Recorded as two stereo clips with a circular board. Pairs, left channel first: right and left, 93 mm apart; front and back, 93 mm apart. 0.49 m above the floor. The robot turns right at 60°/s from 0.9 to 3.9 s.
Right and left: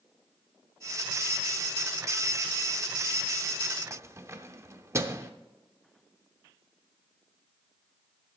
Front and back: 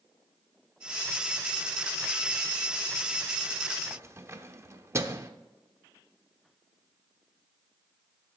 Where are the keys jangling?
135° left, 0.6 m.